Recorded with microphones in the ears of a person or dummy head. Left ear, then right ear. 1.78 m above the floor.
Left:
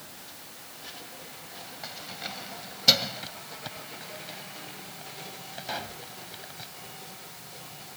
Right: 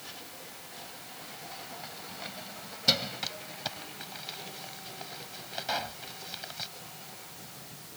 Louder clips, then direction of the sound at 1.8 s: Left 4 dB; 15° left (ahead or behind).